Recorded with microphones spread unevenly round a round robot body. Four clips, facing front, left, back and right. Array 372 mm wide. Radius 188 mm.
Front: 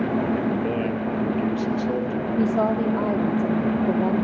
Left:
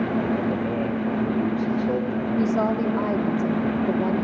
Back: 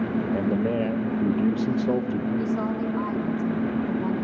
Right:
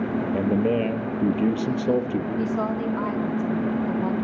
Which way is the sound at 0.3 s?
110° right.